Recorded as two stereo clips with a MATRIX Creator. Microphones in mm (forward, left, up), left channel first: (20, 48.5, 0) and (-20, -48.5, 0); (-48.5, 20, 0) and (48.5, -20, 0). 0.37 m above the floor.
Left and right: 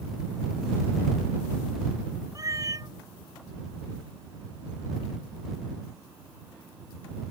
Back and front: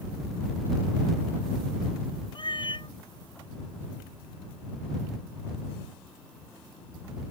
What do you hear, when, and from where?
2.4 s a cat meowing: 165° right